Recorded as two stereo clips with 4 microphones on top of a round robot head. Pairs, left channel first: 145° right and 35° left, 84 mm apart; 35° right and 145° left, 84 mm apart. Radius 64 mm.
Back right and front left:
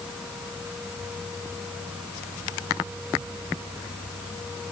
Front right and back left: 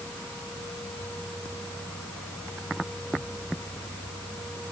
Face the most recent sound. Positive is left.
No sound to turn to.